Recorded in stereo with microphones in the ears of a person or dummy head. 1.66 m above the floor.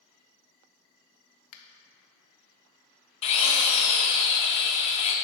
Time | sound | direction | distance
1.5 | a finger snap | 40° left (ahead or behind) | 0.5 m
3.2 | a drill | 35° left (ahead or behind) | 0.6 m